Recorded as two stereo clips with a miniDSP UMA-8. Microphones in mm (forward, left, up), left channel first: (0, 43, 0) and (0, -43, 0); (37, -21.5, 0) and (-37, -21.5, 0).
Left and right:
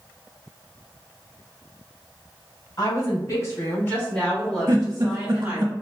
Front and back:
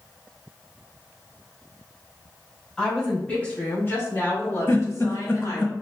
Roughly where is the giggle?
Ahead right.